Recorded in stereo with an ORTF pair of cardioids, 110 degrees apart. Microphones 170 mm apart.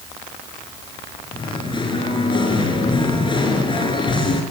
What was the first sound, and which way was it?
Singing, 25° left.